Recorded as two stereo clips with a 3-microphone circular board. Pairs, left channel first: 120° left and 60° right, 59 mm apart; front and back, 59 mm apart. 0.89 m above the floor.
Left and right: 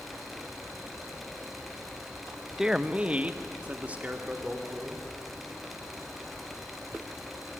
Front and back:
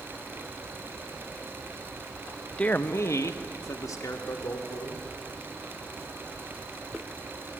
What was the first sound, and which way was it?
A man speaking, 10° left.